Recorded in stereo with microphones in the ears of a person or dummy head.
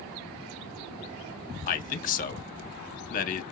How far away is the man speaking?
About 0.8 m.